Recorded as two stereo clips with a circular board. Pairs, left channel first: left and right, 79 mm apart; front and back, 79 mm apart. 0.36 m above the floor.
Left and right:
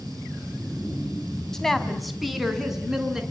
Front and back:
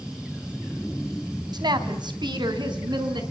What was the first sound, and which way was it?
A woman speaking, 175° left.